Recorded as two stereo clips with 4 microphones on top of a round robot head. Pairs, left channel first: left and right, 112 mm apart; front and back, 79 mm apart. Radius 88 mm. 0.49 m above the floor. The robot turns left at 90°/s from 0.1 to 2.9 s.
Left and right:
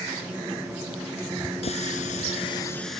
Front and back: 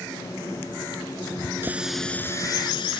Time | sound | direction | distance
1.6 | a running tap | 115° left | ?